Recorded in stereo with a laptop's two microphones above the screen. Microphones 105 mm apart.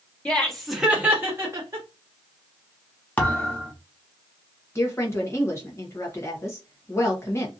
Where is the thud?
15° left (ahead or behind), 0.8 m.